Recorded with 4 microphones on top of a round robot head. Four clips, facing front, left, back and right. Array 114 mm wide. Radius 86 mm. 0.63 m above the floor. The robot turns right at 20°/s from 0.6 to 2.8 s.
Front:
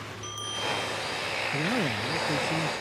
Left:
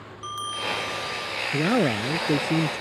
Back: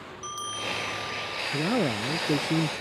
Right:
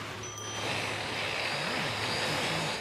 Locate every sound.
0.2 s a bell: 115° left; by 1.4 s 130° left
1.5 s a man speaking: 100° left; by 2.8 s 125° left